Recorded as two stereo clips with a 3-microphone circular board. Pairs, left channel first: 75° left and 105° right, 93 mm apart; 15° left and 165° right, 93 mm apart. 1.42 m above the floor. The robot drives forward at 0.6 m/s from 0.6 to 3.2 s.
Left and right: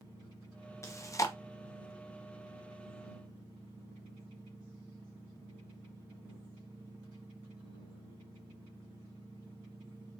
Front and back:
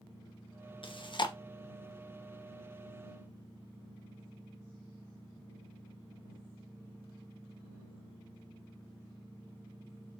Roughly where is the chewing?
Ahead.